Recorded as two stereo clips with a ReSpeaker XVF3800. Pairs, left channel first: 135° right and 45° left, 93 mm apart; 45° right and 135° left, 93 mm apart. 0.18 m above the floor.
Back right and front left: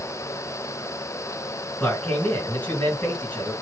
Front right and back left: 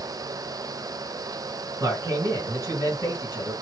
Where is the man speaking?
160° left, 2 m.